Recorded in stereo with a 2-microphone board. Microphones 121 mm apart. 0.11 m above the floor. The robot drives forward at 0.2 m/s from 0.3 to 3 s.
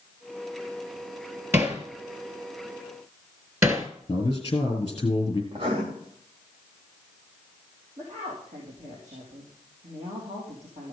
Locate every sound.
1.5 s hammering: 15° right (ahead or behind), 1.6 m; by 3.9 s 20° right (ahead or behind), 1.4 m
4.1 s a man speaking: 35° left (ahead or behind), 2.5 m
5.5 s writing: 45° right (ahead or behind), 4.5 m
8.0 s a woman speaking: 65° right (ahead or behind), 4.5 m